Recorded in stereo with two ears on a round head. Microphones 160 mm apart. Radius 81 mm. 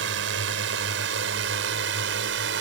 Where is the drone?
75° right (ahead or behind); by 2.6 s 70° right (ahead or behind).